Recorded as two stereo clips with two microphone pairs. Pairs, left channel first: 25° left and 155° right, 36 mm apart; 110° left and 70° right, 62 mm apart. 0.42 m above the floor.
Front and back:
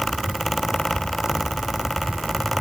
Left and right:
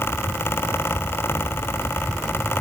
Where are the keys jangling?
I don't hear keys jangling.